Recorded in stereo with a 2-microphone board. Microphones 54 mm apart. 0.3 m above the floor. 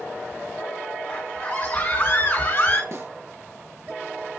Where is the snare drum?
60° right (ahead or behind), 3.5 m.